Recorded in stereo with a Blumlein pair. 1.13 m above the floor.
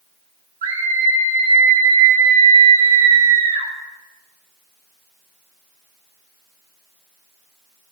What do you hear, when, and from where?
0.6 s a scream: 65° right, 2 m